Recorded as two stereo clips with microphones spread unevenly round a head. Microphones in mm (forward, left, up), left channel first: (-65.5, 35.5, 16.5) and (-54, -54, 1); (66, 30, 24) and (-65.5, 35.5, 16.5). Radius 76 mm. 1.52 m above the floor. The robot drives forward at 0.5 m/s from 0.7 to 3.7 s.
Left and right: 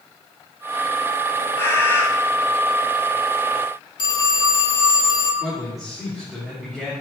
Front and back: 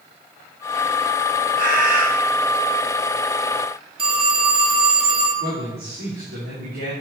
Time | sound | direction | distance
1.6 | a bird | 160° left | 4.5 m
4.0 | a phone ringing | 130° left | 3 m
5.4 | a man speaking | 170° right | 5 m